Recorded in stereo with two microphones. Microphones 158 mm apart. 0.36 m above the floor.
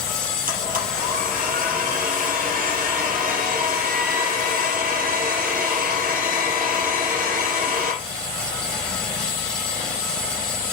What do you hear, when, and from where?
0.5 s a blender: 60° right (ahead or behind), 5.5 m